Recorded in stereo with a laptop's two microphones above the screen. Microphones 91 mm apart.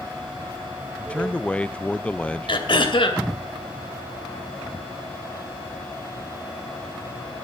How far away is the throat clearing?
About 2 m.